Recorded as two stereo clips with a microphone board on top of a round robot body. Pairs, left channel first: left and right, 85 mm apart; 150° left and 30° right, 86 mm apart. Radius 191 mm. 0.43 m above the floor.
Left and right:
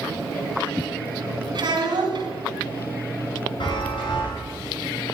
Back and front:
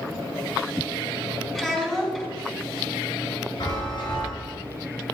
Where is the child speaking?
120° right, 3.5 m.